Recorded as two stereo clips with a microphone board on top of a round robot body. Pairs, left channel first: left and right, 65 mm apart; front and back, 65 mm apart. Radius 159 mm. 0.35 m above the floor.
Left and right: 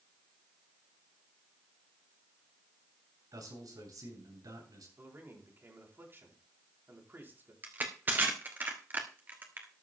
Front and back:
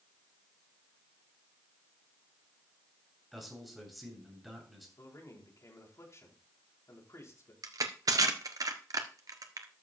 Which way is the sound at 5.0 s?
35° right.